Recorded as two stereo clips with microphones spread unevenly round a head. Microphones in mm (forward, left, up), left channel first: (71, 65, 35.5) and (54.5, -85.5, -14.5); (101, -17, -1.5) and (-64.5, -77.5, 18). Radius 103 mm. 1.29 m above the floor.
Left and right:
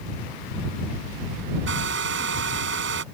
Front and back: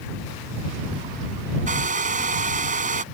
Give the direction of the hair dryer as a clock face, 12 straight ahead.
4 o'clock.